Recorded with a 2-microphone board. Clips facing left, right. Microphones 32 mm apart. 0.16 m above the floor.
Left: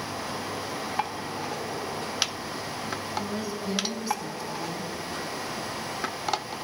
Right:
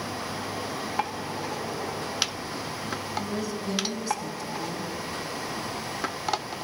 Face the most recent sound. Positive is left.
turn(degrees=10)  # may be behind; listen again after turning